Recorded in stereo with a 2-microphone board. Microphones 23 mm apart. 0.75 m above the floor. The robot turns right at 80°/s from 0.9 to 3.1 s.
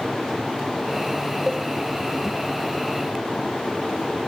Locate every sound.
1.5 s a cowbell: 15° left (ahead or behind), 2.5 m; by 1.7 s 35° left (ahead or behind), 2.5 m